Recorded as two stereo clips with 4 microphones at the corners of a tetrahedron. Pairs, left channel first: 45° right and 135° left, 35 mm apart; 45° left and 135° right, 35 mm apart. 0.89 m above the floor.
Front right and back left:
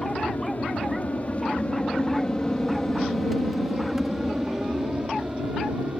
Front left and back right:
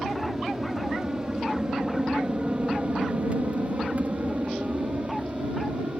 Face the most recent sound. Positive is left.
turn(degrees=180)